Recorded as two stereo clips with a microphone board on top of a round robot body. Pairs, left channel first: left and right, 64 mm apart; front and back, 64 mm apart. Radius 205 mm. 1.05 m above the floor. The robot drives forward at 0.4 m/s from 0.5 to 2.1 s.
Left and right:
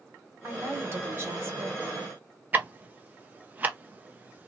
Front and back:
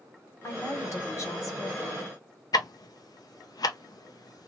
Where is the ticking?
25° right, 0.5 m.